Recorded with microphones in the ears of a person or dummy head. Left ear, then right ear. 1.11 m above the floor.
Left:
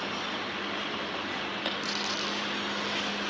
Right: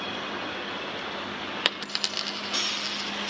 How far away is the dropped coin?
About 0.7 m.